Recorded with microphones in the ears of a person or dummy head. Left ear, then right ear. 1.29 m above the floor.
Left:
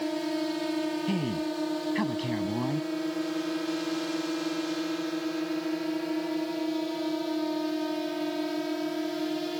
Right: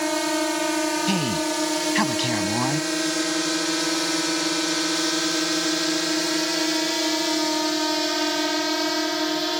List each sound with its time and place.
0.0 s a drone: 45° right (ahead or behind)
1.1 s a man speaking: 40° right (ahead or behind)